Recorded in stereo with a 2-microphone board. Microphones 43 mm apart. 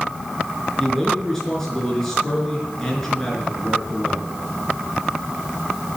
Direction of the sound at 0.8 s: 10° left (ahead or behind).